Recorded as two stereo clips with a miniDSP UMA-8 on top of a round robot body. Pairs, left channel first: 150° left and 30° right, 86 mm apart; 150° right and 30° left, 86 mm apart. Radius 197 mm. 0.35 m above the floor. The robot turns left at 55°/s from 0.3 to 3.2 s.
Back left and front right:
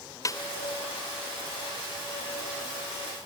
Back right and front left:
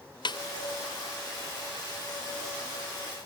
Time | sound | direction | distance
0.2 | a snare drum | 165° right | ?